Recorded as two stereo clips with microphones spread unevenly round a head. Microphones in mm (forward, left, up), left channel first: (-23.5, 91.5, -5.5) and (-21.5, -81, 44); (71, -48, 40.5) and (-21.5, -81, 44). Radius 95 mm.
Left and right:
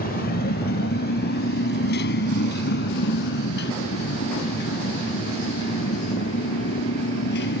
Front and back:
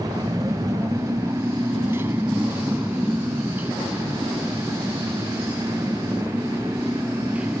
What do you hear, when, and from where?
0.0 s a motorcycle: 135° left; by 7.6 s 120° left